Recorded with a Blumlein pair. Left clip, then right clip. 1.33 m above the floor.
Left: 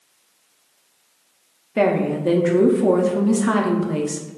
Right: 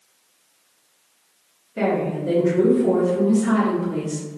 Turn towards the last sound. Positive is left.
turn(degrees=30)